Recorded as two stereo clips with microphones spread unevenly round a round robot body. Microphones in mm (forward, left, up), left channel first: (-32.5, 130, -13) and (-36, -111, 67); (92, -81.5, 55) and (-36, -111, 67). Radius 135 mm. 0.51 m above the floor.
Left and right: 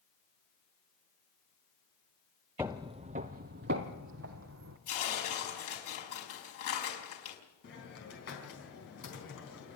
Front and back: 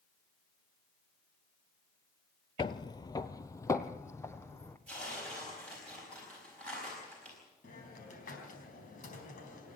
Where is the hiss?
45° left, 4 m.